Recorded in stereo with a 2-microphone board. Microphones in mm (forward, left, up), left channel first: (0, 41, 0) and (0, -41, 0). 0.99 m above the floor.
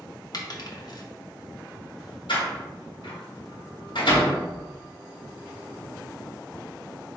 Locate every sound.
0.3 s a dropped coin: 50° left (ahead or behind), 0.7 m
2.3 s a door slam: 80° left, 1.1 m